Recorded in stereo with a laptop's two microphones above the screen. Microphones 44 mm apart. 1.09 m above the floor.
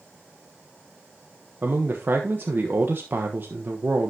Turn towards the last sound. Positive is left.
turn(degrees=-45)  # may be behind; listen again after turning